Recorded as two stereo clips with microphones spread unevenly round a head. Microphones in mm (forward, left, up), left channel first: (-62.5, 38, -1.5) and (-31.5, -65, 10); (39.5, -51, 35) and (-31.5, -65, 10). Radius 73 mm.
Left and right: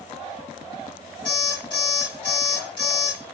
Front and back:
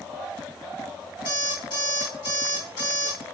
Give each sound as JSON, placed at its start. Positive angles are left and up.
{"t": 1.2, "sound": "an alarm clock", "azimuth_deg": 45, "distance_m": 2.0}